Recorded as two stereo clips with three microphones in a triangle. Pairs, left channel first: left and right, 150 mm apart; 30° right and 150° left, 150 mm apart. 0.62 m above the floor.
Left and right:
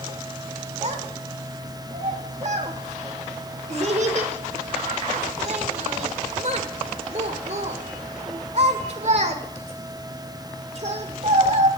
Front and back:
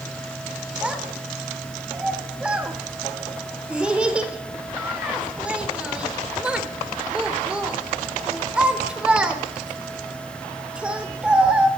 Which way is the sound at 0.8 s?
125° right.